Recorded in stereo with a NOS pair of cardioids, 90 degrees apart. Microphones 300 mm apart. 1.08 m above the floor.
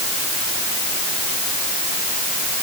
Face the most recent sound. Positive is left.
No sound to turn to.